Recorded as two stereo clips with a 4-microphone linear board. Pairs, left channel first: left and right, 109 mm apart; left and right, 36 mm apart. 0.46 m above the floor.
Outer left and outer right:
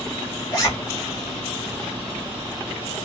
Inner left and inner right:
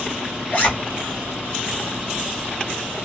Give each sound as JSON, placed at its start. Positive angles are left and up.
{"t": 0.5, "sound": "a zipper", "side_deg": 35, "distance_m": 1.5}